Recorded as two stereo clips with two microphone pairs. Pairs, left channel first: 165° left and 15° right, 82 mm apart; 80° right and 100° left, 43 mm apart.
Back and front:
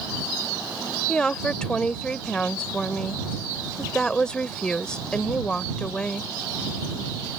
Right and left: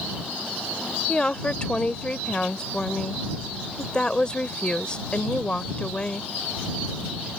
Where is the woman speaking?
125° right.